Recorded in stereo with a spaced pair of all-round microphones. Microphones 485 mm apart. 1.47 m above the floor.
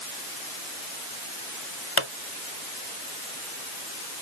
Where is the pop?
70° left (ahead or behind).